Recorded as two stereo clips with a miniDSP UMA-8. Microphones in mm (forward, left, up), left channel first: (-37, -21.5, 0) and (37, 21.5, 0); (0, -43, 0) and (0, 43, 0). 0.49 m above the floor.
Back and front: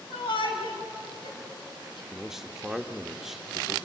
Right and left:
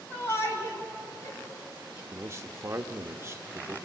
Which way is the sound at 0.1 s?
150° right.